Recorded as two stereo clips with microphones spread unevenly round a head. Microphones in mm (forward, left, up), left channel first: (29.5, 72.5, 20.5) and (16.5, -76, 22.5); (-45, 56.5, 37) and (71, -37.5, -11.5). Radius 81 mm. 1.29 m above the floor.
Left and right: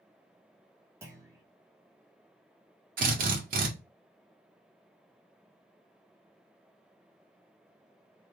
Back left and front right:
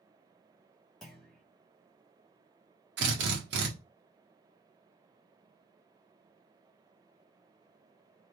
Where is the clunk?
155° right, 0.9 m.